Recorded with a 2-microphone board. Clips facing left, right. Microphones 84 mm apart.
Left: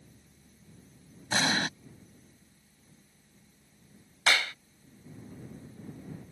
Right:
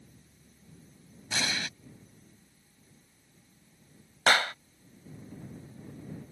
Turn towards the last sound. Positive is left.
turn(degrees=-45)  # may be behind; listen again after turning